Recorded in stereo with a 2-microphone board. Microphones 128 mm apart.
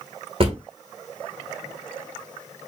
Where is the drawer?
45° right (ahead or behind), 0.8 m.